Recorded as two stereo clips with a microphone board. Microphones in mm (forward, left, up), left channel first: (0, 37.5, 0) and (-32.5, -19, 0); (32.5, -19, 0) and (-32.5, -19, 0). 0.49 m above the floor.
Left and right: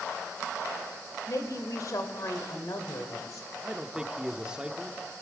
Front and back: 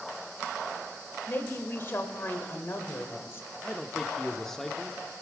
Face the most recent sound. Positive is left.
turn(degrees=-75)